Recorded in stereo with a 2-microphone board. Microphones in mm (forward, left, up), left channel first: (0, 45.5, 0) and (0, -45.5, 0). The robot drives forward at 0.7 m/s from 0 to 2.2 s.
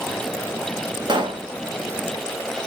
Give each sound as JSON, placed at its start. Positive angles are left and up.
{"t": 1.1, "sound": "a pop", "side_deg": -55, "distance_m": 1.5}